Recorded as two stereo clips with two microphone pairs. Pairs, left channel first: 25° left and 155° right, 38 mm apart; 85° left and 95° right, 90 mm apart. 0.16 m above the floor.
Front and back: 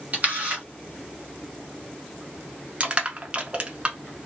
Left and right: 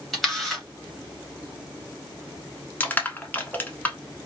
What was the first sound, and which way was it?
A camera shutter, 175° left.